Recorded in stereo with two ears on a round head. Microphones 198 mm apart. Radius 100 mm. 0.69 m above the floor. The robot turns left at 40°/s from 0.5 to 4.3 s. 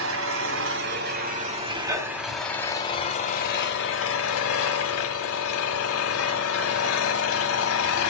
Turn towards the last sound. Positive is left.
turn(degrees=100)